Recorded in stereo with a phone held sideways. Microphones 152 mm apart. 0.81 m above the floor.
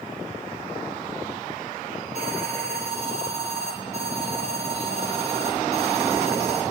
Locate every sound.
2.1 s an alarm: 45° right (ahead or behind), 7.5 m